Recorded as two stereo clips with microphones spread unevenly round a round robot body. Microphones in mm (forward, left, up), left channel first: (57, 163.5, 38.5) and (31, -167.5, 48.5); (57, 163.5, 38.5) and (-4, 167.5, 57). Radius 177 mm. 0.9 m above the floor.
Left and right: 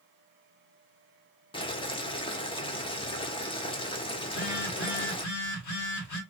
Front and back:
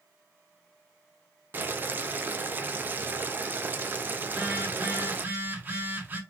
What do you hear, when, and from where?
1.5 s boiling: 120° left, 0.5 m
4.2 s a phone buzzing: 105° left, 1.2 m